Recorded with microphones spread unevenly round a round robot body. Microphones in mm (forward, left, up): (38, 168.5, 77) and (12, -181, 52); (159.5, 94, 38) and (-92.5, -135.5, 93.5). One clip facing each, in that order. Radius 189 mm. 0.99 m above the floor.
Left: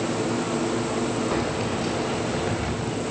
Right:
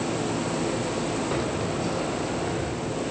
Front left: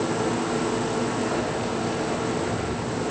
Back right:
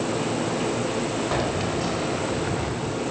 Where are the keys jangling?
175° left, 4 m; by 3.0 s 150° left, 5 m.